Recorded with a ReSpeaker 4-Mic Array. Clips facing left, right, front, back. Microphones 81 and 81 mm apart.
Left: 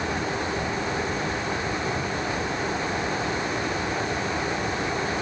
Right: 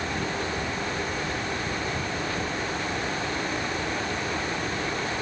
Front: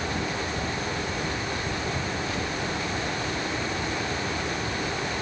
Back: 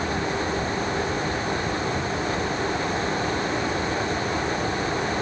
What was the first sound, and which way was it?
Only background noise.